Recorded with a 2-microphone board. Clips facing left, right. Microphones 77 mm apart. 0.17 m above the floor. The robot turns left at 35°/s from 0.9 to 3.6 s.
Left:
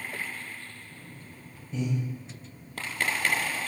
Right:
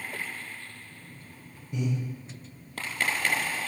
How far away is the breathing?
About 1.1 m.